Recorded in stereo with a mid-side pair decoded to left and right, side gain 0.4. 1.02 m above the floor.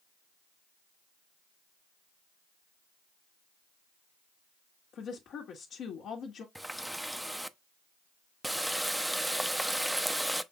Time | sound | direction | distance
4.9 | a woman speaking | 70° left | 1.5 m
6.5 | a running tap | 5° right | 0.5 m